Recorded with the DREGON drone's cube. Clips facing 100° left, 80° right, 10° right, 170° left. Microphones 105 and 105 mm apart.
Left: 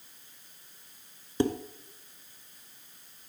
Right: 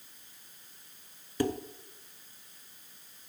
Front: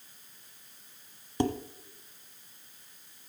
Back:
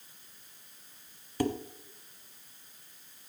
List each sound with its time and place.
1.4 s dishes clattering: 45° left, 1.0 m